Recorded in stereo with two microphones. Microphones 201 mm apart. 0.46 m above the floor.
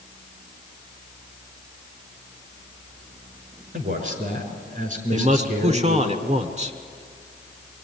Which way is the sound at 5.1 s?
35° right (ahead or behind).